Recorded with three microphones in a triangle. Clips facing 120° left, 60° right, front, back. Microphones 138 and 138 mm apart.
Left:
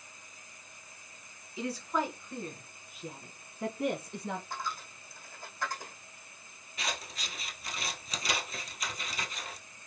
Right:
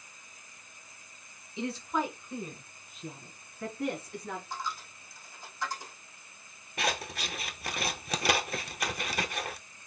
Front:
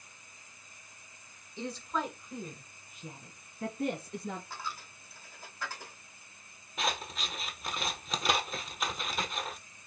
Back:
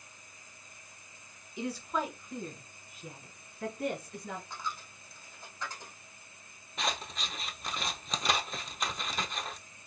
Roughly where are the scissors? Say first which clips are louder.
Right 6 dB, front 1 dB; right.